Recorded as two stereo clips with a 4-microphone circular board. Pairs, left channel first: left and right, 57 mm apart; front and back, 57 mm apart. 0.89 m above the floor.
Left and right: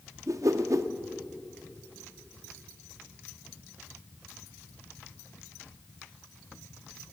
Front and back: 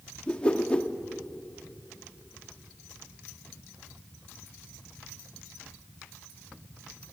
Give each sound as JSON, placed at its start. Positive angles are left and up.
{"t": 0.3, "sound": "a whoosh", "azimuth_deg": -70, "distance_m": 0.6}